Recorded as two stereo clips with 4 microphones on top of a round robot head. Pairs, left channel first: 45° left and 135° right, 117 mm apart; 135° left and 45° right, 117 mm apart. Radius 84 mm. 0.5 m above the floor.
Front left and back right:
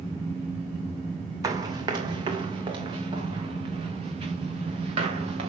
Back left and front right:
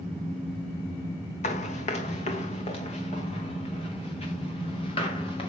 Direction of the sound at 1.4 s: 160° left.